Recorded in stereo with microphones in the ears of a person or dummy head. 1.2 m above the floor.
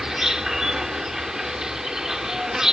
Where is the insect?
5° right (ahead or behind).